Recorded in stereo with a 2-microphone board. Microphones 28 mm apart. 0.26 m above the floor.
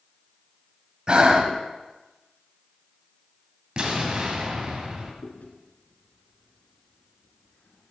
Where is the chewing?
70° left (ahead or behind), 1.5 m.